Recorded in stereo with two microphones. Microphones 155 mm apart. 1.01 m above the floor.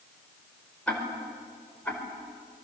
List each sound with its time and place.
0.9 s ticking: 10° left (ahead or behind), 4.5 m